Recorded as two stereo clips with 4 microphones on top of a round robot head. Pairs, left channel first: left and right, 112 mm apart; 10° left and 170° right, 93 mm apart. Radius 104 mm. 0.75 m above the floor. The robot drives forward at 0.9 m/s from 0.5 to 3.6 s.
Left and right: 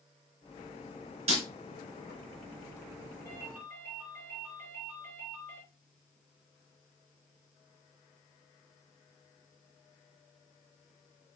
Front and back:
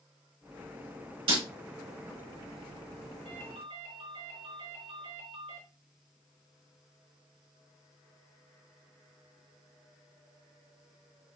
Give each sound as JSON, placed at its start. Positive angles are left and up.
{"t": 1.3, "sound": "breaking glass", "azimuth_deg": -130, "distance_m": 3.5}
{"t": 3.2, "sound": "a ringtone", "azimuth_deg": -170, "distance_m": 5.0}